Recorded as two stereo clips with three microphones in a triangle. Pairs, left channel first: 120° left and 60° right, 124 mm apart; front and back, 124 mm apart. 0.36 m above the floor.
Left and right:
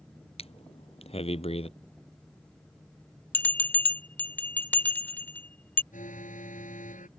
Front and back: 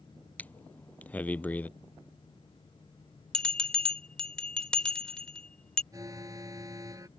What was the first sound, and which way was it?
Breathing, 80° left.